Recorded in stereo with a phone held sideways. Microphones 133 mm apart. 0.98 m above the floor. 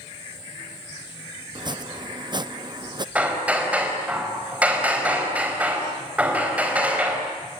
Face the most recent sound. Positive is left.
turn(degrees=-10)  # may be behind; listen again after turning